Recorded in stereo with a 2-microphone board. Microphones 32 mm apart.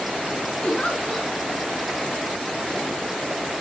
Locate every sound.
0.6 s a giggle: 30° left (ahead or behind), 5.5 m